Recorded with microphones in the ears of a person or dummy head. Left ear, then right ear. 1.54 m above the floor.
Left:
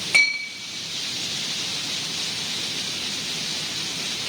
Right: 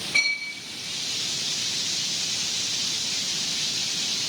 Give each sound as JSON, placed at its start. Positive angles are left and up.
{"t": 0.1, "sound": "a clink", "side_deg": 35, "distance_m": 0.9}